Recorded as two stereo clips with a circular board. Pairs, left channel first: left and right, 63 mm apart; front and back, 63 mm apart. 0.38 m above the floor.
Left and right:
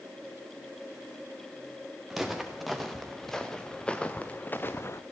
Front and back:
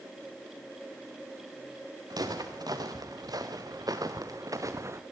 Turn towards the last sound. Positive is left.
turn(degrees=135)